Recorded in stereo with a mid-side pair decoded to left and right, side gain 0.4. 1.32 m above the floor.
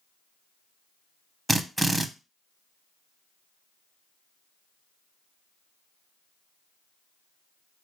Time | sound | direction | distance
1.5 | a drill | 15° right | 0.5 m